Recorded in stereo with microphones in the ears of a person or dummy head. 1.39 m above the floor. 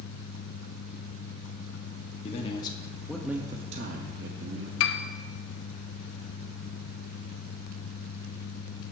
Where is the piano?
70° left (ahead or behind), 0.7 m.